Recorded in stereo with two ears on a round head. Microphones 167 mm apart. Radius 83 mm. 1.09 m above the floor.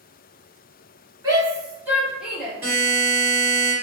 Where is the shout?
20° right (ahead or behind), 1.6 m; by 2.5 s centre (ahead or behind), 1.2 m.